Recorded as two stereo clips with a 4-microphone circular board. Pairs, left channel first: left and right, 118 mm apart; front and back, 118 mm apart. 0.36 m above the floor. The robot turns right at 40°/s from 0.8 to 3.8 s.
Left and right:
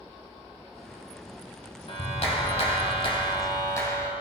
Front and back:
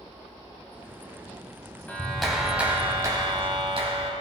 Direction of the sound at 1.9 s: 75° left.